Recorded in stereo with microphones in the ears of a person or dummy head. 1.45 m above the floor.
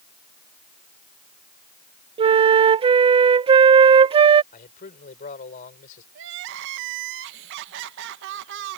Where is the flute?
35° right (ahead or behind).